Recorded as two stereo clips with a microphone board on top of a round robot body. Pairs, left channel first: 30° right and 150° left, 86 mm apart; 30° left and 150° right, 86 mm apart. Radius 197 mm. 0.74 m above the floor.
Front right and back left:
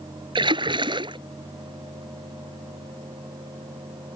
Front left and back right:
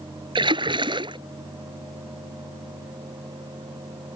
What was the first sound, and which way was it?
A splash, straight behind.